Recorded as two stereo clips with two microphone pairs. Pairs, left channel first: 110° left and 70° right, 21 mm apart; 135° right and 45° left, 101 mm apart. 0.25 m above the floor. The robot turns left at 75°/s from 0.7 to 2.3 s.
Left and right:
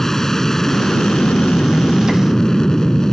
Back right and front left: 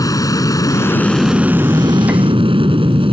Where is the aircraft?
175° left; by 3.1 s 55° left.